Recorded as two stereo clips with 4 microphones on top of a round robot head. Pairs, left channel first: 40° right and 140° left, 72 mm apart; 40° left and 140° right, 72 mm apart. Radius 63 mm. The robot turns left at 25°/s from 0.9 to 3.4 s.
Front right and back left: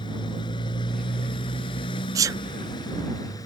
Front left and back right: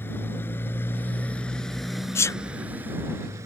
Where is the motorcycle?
20° right; by 3.5 s 85° right.